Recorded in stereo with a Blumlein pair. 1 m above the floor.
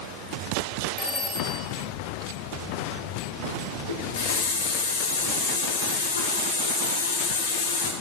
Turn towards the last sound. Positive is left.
turn(degrees=65)